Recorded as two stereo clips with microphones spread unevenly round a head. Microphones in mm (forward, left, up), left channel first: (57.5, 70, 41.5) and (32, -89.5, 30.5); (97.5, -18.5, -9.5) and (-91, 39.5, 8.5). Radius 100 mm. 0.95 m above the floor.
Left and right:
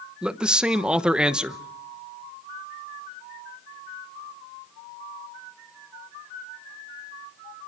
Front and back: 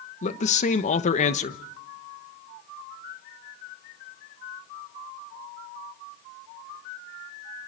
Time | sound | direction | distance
0.2 | a man speaking | 25° right | 1.1 m